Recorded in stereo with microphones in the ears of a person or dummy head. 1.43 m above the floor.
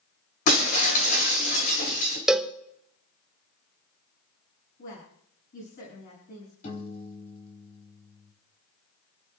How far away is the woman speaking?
About 7 m.